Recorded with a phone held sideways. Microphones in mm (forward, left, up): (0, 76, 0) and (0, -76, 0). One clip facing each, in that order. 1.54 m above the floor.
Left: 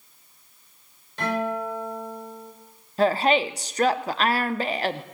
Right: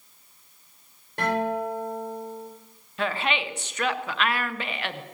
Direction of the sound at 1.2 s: 60° right (ahead or behind).